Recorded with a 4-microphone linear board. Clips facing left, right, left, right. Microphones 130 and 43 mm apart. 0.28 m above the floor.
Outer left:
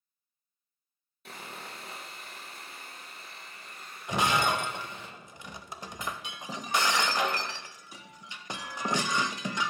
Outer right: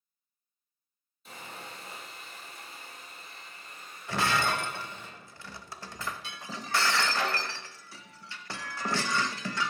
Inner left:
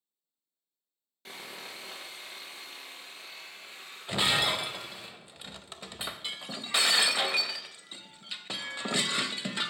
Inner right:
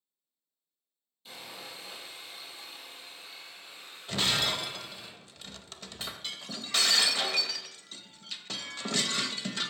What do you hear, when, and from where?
1.2 s sawing: 70° left (ahead or behind), 2.5 m
4.1 s breaking glass: 20° left (ahead or behind), 0.5 m